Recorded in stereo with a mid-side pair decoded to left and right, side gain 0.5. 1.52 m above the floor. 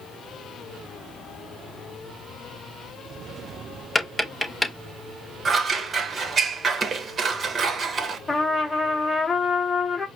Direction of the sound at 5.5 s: 40° right.